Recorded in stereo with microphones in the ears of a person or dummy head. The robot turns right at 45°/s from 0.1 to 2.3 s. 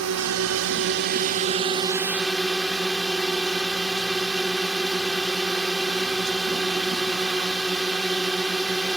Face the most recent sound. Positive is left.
turn(degrees=-5)